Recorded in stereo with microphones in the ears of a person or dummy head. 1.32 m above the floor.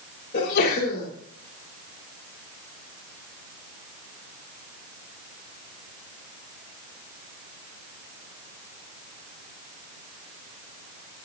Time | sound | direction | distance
0.3 | a sneeze | 55° left (ahead or behind) | 3.5 m